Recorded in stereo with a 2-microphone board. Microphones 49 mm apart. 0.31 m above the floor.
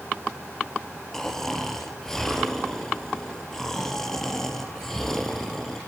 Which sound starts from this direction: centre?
Snoring, at 1.1 s.